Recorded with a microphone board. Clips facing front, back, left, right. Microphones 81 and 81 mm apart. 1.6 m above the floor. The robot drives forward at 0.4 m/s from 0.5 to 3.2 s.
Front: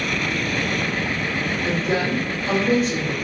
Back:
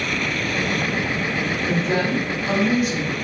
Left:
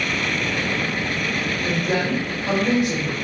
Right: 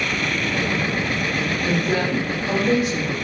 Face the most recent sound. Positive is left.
turn(degrees=105)